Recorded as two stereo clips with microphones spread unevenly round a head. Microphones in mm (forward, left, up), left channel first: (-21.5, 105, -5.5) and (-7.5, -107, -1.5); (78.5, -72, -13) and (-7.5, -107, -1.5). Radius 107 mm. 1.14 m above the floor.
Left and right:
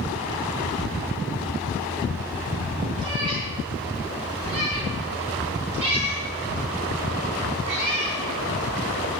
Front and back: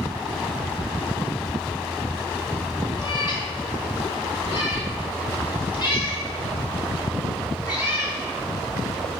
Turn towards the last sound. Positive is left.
turn(degrees=-20)